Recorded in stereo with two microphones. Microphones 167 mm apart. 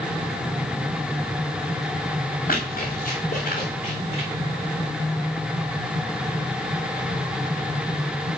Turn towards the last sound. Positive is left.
turn(degrees=40)  # may be behind; listen again after turning